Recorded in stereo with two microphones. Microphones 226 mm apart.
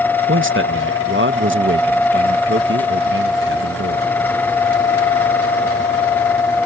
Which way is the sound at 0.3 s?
60° right (ahead or behind).